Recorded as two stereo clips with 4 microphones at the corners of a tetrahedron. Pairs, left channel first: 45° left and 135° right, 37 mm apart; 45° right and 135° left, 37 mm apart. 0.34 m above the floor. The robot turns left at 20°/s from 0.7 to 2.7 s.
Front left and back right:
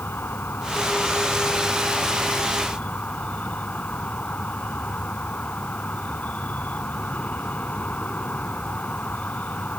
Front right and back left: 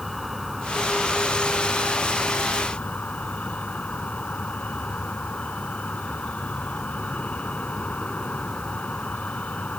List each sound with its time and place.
0.0 s an insect: 45° left; by 9.8 s 5° left